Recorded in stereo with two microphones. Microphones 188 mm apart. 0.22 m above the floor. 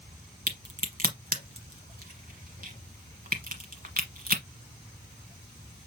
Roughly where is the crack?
Right.